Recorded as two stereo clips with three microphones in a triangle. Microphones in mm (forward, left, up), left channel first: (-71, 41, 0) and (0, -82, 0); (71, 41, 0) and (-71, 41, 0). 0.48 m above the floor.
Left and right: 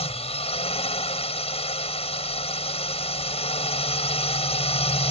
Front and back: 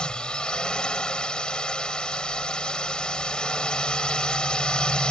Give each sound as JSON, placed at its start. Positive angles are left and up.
{"t": 0.0, "sound": "a drone", "azimuth_deg": 85}